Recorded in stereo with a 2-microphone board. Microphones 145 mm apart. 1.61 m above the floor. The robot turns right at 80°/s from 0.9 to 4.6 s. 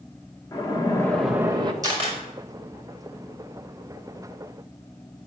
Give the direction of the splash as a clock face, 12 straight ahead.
7 o'clock.